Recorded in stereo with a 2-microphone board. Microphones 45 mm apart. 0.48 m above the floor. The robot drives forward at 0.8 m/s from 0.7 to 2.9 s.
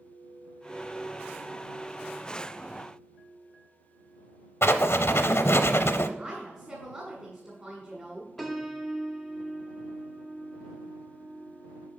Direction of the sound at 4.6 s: 80° left.